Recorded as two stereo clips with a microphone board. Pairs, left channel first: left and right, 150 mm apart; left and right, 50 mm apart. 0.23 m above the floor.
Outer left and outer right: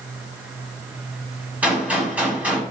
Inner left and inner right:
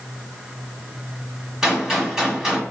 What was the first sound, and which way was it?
A gunshot, 10° right (ahead or behind).